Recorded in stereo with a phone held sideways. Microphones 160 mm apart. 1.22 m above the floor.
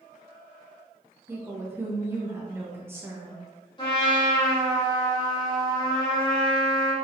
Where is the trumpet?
30° left (ahead or behind), 1.2 m.